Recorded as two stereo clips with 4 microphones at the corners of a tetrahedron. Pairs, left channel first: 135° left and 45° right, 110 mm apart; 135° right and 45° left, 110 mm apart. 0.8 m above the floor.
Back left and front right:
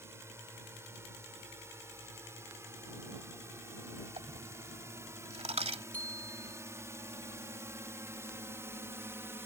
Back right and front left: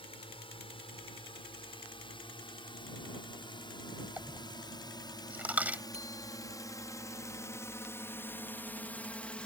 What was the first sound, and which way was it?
A drone, 110° right.